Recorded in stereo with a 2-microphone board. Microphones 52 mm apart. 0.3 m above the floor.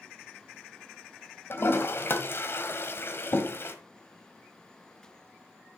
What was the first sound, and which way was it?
A toilet flushing, 50° left (ahead or behind).